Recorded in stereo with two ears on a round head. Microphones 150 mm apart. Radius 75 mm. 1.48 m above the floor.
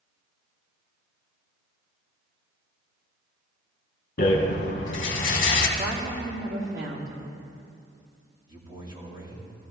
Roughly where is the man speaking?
Right.